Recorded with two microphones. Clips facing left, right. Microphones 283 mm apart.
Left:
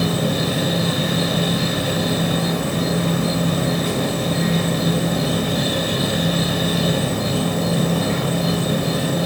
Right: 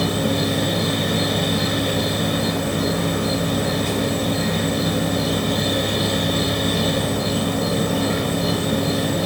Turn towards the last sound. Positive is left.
turn(degrees=65)  # may be behind; listen again after turning